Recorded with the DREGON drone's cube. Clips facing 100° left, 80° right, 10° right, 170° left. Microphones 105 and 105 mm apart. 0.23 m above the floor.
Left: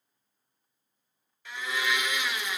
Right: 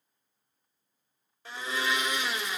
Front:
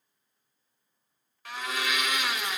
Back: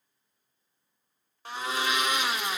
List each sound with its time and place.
1.4 s a blender: 130° right, 0.5 m